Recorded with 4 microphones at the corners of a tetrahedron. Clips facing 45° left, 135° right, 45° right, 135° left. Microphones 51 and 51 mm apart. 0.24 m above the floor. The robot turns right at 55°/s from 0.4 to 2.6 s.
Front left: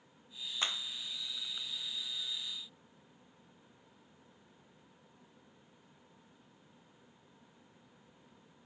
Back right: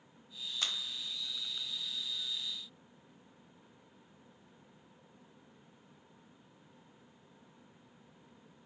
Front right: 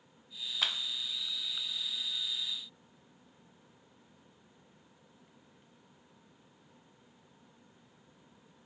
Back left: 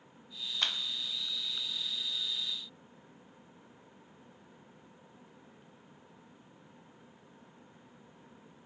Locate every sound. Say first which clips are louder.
0.6 s a clap: front left 2 dB, even; 35° left, 0.7 m; by 0.8 s 45° left, 0.7 m